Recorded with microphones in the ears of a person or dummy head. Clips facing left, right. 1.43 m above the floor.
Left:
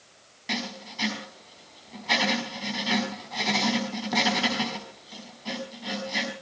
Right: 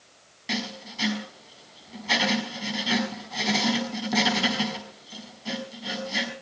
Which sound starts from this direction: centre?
Writing, at 0.5 s.